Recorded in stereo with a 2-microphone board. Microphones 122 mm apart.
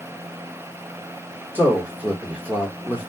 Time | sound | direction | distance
1.6 | a man speaking | 15° right (ahead or behind) | 1.3 m